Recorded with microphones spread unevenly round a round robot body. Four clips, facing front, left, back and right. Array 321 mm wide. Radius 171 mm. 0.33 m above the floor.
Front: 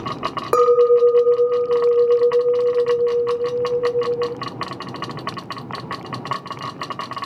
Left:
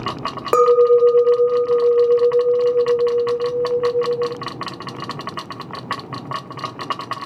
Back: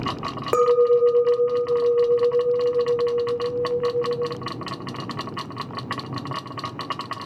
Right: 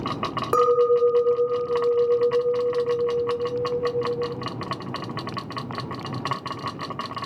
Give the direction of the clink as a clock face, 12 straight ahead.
10 o'clock.